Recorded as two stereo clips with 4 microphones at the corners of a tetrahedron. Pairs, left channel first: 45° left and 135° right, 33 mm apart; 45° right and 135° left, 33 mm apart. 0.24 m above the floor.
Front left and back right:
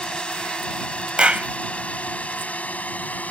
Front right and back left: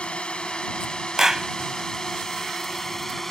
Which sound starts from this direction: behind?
A clap, at 1.2 s.